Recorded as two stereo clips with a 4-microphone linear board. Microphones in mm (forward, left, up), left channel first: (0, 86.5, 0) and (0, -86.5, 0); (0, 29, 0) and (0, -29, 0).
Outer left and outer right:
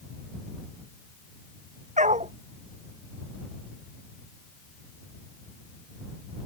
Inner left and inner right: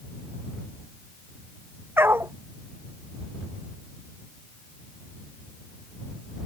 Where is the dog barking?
45° right (ahead or behind).